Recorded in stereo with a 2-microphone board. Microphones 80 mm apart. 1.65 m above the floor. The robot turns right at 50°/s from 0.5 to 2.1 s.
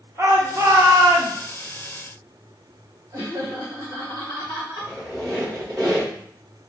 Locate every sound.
0.2 s a shout: 145° right, 1.1 m; by 1.3 s 100° right, 1.1 m
3.1 s laughter: 60° right (ahead or behind), 2.5 m
4.8 s a squeak: 55° right (ahead or behind), 1.8 m